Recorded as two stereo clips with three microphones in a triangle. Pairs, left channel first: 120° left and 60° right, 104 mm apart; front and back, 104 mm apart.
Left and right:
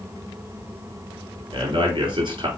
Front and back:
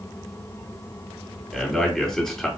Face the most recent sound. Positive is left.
turn(degrees=-85)